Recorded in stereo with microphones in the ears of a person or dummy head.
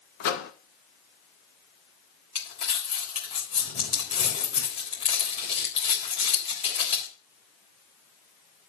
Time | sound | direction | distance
0.2 | a microwave | 65° left (ahead or behind) | 1.4 m
2.4 | crumpling | 30° left (ahead or behind) | 4 m